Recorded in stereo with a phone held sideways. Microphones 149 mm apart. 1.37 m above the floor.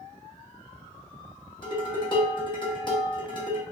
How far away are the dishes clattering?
About 1.1 m.